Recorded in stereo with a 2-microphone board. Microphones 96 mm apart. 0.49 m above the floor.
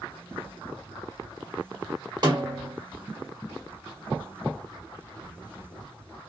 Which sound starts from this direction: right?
A snare drum, at 2.2 s.